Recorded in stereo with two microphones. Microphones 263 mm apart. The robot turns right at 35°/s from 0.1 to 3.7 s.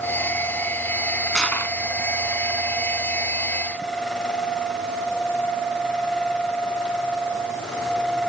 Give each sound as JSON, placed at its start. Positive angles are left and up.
{"t": 1.4, "sound": "crushing", "side_deg": 0, "distance_m": 1.3}